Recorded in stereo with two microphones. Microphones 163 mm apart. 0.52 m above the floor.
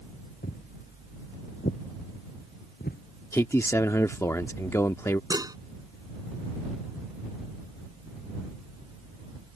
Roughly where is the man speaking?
Centre.